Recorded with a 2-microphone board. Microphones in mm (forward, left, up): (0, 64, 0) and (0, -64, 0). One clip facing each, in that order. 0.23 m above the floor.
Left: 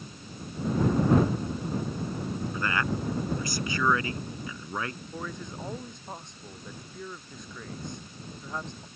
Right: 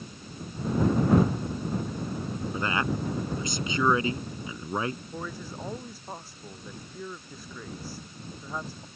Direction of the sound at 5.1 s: 5° right (ahead or behind).